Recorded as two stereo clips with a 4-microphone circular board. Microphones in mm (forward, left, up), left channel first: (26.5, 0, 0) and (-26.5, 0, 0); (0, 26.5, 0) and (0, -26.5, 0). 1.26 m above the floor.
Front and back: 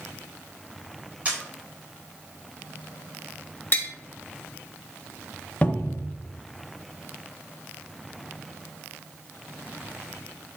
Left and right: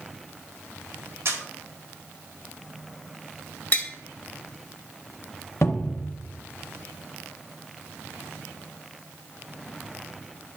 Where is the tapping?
45° left, 1.2 m.